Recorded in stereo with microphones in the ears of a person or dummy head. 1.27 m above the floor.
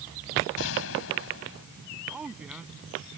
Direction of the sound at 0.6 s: 70° left (ahead or behind).